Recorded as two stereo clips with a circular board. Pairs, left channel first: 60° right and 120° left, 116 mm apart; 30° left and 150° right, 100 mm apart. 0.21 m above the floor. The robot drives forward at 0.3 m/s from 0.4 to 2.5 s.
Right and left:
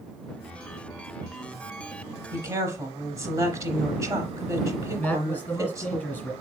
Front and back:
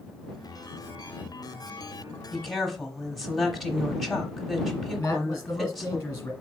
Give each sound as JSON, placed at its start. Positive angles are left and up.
{"t": 2.3, "sound": "a woman speaking", "azimuth_deg": 115, "distance_m": 1.0}
{"t": 5.0, "sound": "a man speaking", "azimuth_deg": -10, "distance_m": 1.0}